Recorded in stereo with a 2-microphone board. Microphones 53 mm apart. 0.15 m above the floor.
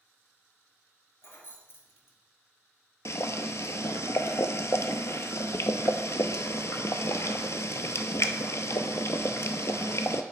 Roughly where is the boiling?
Left.